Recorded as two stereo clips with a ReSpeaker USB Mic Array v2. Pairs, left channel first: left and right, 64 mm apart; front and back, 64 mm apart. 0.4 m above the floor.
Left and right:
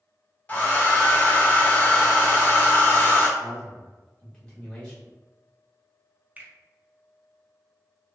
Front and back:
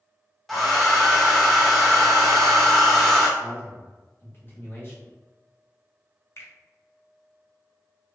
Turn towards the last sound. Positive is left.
turn(degrees=-30)